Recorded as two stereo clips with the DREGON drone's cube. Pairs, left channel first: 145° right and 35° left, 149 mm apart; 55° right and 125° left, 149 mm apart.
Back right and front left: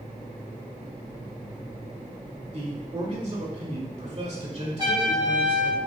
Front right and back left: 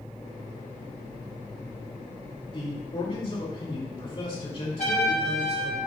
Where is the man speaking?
5° right, 2.5 m.